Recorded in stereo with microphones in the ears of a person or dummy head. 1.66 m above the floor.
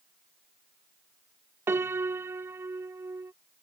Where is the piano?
10° right (ahead or behind).